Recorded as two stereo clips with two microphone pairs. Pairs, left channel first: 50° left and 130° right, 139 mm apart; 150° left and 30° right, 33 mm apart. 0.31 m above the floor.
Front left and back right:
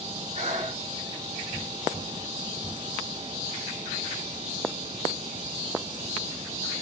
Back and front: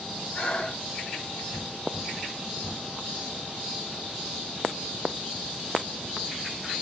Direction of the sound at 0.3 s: 150° right.